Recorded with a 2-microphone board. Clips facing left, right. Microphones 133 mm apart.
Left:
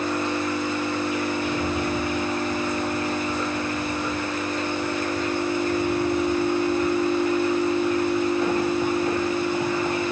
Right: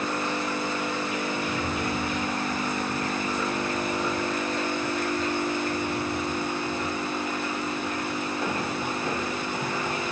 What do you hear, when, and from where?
1.4 s a rattle: 25° left (ahead or behind), 2.5 m